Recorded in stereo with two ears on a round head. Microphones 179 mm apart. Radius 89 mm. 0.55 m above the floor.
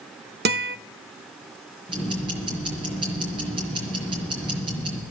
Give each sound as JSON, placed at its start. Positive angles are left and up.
{"t": 0.5, "sound": "a guitar", "side_deg": -50, "distance_m": 0.6}
{"t": 1.9, "sound": "ticking", "side_deg": -25, "distance_m": 5.0}